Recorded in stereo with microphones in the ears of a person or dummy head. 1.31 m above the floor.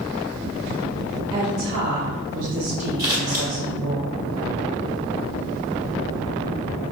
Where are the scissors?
20° right (ahead or behind), 1.1 m.